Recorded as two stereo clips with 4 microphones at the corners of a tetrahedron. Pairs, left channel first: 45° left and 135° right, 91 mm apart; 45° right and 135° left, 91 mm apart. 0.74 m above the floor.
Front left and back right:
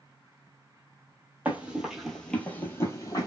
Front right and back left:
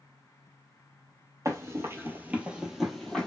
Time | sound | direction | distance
1.4 | running footsteps | 165° left | 0.9 m